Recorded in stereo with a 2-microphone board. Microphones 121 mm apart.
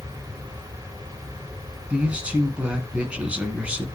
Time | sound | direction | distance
1.9 | a man speaking | 10° right (ahead or behind) | 2 m